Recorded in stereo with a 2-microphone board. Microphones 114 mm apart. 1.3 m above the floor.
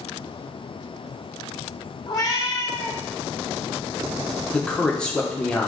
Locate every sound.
2.1 s a cat meowing: 35° left (ahead or behind), 0.7 m
4.5 s a man speaking: 10° left (ahead or behind), 0.9 m